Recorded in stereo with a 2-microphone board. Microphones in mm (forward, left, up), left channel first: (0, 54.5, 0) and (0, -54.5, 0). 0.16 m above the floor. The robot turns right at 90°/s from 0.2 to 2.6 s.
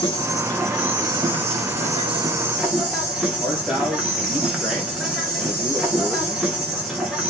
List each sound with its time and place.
0.0 s an insect: 140° left, 3 m; by 7.3 s 5° right, 3 m
3.4 s a man speaking: centre (ahead or behind), 4 m